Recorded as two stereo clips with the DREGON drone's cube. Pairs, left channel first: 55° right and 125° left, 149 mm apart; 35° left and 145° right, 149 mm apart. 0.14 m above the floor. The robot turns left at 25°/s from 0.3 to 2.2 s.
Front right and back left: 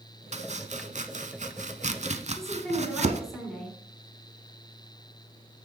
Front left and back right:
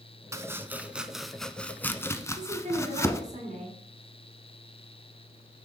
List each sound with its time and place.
0.3 s chopping: 150° left, 0.6 m; by 3.2 s 100° left, 0.6 m
2.4 s a woman speaking: 145° right, 2.5 m